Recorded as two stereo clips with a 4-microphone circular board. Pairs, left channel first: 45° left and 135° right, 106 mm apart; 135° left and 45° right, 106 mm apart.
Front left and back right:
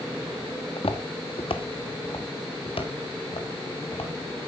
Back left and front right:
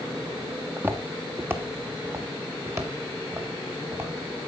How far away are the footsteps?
About 1.7 m.